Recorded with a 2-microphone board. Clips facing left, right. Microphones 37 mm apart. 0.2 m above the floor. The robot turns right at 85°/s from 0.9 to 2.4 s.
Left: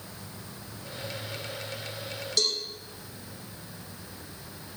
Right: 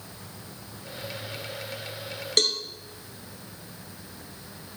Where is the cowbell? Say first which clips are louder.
Right 4 dB; 55° right (ahead or behind), 0.7 m.